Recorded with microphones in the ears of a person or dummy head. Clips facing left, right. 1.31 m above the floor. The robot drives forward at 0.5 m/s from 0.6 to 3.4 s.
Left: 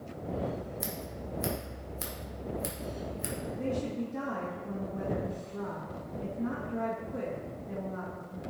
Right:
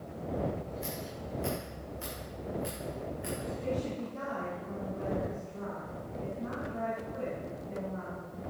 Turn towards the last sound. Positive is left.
turn(degrees=65)  # may be behind; listen again after turning